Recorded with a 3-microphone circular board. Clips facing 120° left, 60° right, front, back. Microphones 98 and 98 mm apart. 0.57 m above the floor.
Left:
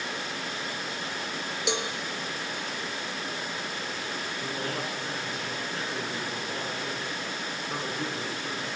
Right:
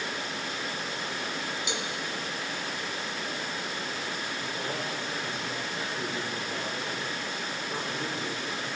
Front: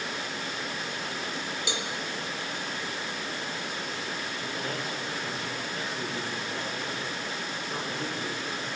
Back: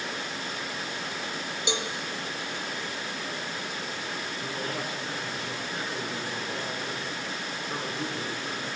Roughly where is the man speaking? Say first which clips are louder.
Left 2 dB, back 1 dB; behind left.